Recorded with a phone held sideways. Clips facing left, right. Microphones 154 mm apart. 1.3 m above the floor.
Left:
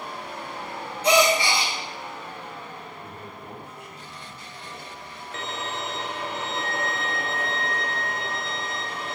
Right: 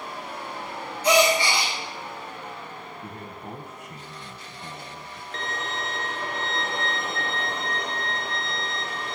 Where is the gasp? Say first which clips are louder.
Even; 25° left (ahead or behind), 2 m.